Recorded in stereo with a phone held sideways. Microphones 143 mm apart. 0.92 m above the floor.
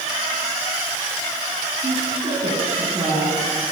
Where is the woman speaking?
40° right (ahead or behind), 7.5 m.